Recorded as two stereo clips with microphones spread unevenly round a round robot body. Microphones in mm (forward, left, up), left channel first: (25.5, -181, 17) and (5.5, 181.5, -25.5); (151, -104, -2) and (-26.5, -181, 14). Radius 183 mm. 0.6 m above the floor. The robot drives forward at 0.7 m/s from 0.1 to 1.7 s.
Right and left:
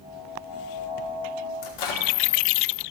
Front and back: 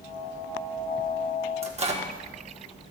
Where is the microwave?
100° right, 1.4 m.